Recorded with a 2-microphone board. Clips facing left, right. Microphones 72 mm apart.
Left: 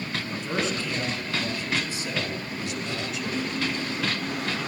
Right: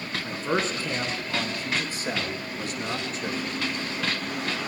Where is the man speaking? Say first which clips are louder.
Right 3 dB; 35° right (ahead or behind), 2 m; by 3.5 s 40° right (ahead or behind), 2 m.